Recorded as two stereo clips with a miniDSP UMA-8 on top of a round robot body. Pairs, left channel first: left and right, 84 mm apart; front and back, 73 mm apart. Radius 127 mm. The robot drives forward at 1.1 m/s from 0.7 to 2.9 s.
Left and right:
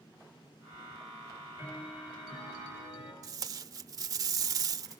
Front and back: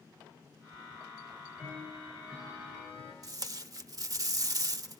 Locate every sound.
1.2 s ticking: 100° left, 9 m; by 3.1 s 110° left, 9.5 m
3.2 s tape being pulled: 140° right, 0.8 m